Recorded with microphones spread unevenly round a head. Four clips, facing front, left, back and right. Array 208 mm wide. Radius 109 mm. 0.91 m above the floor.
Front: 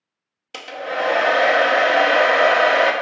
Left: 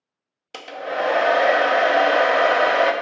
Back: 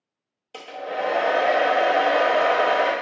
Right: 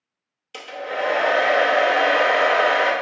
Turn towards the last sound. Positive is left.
turn(degrees=30)